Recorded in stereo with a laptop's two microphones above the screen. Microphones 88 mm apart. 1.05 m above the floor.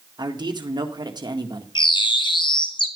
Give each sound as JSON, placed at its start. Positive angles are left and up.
{"t": 0.2, "sound": "a man speaking", "side_deg": -50, "distance_m": 1.8}
{"t": 1.8, "sound": "a bird", "side_deg": 60, "distance_m": 1.6}